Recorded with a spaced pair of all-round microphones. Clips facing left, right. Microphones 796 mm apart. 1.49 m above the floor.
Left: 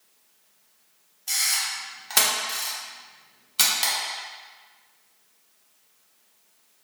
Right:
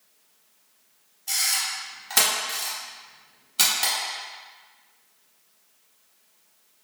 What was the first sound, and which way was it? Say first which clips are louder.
A camera shutter: right 2 dB; 15° left (ahead or behind).